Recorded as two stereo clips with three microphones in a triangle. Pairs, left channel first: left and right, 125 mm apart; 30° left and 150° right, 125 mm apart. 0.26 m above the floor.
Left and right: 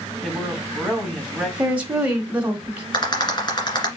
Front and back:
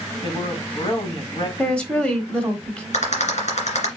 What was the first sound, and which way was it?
A woman speaking, 5° left.